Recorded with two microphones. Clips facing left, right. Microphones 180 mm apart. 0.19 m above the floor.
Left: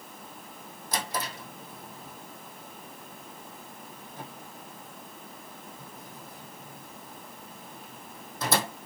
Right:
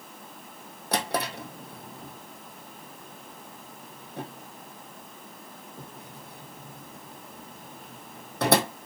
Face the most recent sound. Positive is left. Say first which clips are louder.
# right 5 dB
turn(degrees=-80)